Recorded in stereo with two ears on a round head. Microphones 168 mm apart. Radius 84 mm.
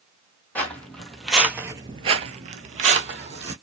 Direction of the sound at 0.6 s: 10° left (ahead or behind).